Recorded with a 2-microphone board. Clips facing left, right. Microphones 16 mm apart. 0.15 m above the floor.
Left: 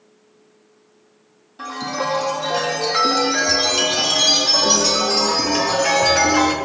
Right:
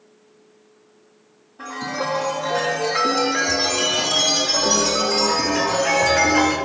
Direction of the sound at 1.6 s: 75° left (ahead or behind).